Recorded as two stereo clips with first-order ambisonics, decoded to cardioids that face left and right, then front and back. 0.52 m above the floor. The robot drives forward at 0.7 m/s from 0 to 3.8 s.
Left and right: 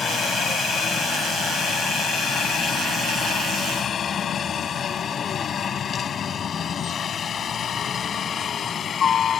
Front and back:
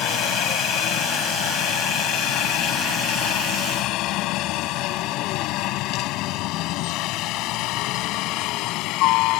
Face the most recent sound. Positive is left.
turn(degrees=30)